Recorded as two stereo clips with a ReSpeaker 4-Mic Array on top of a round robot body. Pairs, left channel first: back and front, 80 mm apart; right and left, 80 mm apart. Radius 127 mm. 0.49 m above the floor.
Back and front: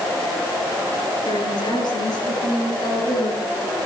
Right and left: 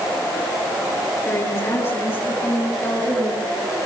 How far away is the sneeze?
No sneeze in this recording.